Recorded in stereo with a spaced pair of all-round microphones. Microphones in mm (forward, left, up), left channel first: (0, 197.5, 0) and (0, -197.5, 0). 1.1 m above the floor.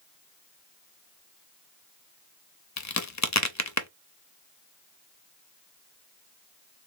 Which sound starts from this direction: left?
A crack, at 2.8 s.